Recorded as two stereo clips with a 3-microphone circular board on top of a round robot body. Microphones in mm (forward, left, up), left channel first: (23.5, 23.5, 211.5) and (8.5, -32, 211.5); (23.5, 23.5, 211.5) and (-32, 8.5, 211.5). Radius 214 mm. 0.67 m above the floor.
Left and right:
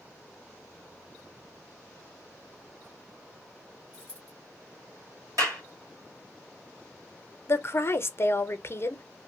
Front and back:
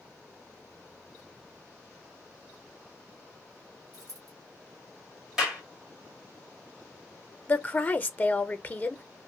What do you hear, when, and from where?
3.9 s a dropped coin: 165° right, 0.9 m
5.4 s a clap: 85° right, 1.8 m
7.5 s a woman speaking: 65° left, 0.8 m